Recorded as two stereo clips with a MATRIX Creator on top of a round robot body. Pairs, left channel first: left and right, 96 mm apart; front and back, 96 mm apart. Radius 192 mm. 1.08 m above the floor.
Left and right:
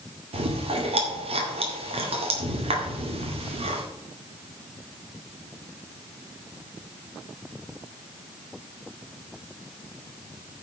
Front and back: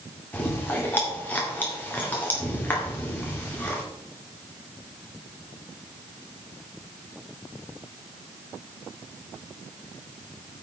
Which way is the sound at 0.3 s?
75° right.